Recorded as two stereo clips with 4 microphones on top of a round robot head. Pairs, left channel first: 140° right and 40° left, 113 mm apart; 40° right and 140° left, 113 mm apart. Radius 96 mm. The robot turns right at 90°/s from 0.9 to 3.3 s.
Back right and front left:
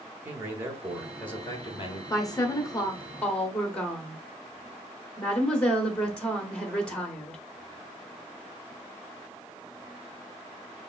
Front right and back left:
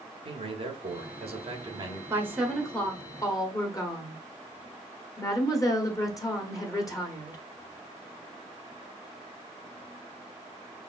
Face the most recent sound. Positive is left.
turn(degrees=-65)